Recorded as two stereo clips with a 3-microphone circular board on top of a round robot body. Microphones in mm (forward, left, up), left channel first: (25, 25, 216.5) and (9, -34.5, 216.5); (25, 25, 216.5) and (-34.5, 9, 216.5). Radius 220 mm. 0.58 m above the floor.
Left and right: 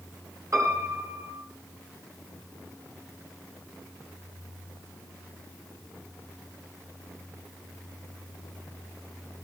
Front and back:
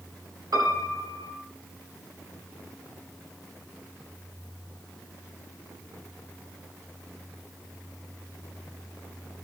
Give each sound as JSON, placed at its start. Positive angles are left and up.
{"t": 0.5, "sound": "a piano", "azimuth_deg": -150, "distance_m": 8.0}